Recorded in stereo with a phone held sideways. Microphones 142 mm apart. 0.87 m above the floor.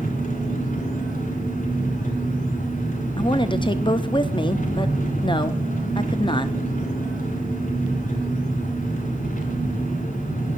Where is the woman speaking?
35° left (ahead or behind), 0.6 m.